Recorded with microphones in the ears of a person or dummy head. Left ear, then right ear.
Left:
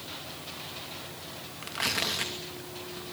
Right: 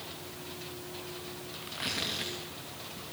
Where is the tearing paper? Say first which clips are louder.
Left 5 dB; 25° left (ahead or behind), 2.5 m.